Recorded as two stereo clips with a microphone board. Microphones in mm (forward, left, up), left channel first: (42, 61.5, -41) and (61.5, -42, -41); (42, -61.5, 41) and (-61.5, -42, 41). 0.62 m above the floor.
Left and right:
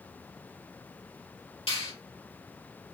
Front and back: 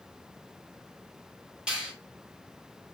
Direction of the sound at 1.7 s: 85° left.